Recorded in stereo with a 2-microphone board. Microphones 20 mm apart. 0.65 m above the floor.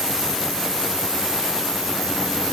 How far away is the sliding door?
No sliding door in this recording.